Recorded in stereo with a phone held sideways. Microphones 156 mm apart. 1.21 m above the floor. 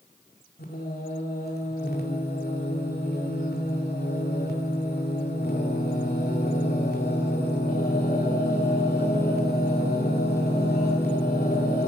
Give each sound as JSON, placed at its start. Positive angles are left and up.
{"t": 0.6, "sound": "singing", "side_deg": 85, "distance_m": 2.5}